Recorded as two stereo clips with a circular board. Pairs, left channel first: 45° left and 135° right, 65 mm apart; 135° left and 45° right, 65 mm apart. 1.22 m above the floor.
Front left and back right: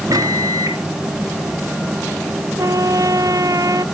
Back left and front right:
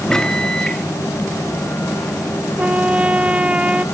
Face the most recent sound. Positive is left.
turn(degrees=-115)